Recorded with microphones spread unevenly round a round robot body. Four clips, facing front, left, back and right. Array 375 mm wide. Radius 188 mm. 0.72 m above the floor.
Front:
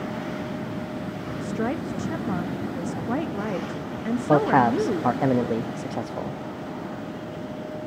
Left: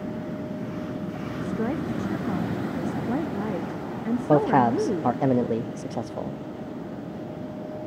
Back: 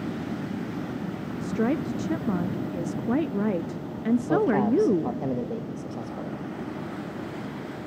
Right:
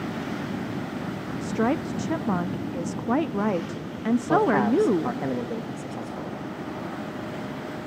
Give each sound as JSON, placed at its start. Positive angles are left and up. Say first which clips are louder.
{"t": 1.4, "sound": "a woman speaking", "louder": "right 3 dB, back 2 dB", "azimuth_deg": -145, "distance_m": 0.6}
{"t": 4.3, "sound": "a man speaking", "louder": "left 2 dB, front 5 dB", "azimuth_deg": 45, "distance_m": 0.9}